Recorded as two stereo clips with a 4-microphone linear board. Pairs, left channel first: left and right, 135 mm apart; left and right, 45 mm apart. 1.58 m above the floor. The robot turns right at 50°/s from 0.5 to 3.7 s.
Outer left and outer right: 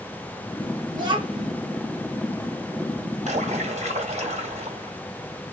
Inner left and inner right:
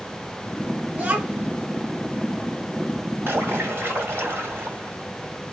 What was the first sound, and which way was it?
A child speaking, 30° right (ahead or behind).